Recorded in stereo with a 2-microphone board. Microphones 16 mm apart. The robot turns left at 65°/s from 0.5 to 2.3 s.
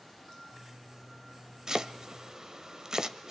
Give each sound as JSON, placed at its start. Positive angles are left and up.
{"t": 1.7, "sound": "chopping", "side_deg": -35, "distance_m": 1.0}